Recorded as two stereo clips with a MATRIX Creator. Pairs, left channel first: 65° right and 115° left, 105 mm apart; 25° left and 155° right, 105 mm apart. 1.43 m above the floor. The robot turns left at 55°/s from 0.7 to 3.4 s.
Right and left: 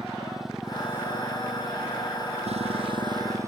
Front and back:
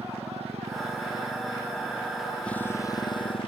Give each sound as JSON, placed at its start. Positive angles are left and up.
{"t": 0.0, "sound": "a motorcycle", "azimuth_deg": -160}